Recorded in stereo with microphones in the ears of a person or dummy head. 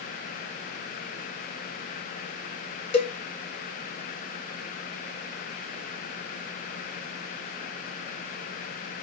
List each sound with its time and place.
2.9 s a cowbell: 35° left (ahead or behind), 0.8 m